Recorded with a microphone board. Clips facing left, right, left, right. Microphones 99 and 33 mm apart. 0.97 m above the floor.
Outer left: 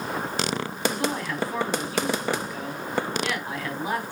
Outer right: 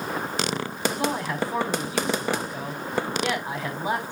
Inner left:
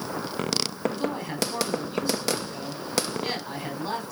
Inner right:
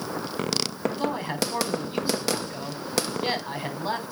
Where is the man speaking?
25° right (ahead or behind), 4 m.